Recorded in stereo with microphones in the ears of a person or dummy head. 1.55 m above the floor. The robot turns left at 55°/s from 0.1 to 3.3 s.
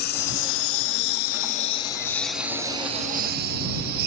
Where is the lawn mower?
55° left (ahead or behind); by 4.1 s 55° right (ahead or behind).